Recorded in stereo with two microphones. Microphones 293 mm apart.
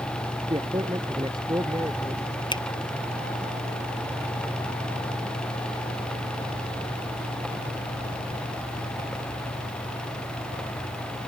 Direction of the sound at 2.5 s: 15° left (ahead or behind).